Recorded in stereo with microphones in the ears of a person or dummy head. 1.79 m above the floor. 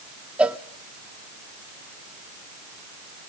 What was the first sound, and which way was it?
A cowbell, 5° right (ahead or behind).